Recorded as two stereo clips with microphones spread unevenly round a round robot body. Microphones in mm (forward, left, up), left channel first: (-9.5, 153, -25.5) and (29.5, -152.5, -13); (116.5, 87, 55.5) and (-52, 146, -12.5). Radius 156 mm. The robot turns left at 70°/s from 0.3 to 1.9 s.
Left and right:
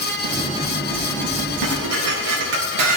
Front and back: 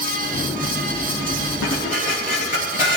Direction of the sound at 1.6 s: 65° right.